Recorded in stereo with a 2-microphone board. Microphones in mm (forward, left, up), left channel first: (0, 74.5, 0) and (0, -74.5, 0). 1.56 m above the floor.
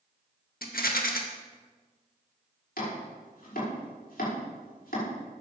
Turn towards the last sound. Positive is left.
turn(degrees=80)